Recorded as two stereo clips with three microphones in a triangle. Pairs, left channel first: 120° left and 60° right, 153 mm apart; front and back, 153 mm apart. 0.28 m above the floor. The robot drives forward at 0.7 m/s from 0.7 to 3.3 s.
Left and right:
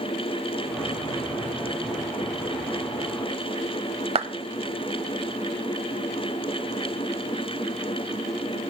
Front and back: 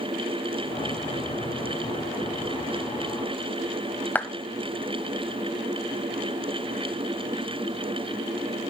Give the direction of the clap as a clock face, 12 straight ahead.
2 o'clock.